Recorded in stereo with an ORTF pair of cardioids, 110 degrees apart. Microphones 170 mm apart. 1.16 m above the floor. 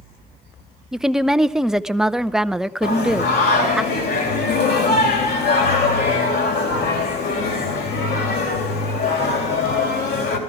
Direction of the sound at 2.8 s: 65° left.